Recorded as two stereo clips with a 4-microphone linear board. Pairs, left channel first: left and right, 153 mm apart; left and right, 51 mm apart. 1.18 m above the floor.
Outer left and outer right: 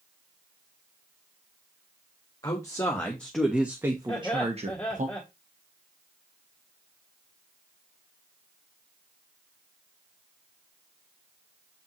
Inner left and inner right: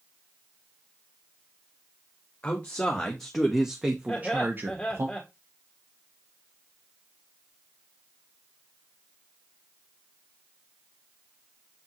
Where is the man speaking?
25° left (ahead or behind), 1.6 m; by 5.1 s 55° right (ahead or behind), 1.4 m.